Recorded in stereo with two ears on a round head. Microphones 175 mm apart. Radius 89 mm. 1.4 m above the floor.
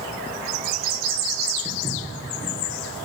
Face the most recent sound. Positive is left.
turn(degrees=-10)  # may be behind; listen again after turning